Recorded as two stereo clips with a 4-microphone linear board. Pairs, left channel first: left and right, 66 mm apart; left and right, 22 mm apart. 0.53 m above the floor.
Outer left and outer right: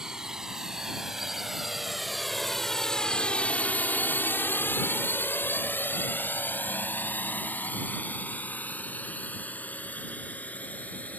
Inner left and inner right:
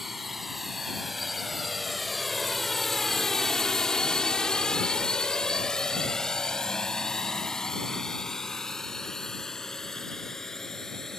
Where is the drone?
10° right (ahead or behind); by 11.2 s 20° left (ahead or behind).